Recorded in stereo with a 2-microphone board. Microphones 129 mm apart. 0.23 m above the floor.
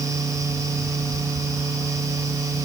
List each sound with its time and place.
Only background noise.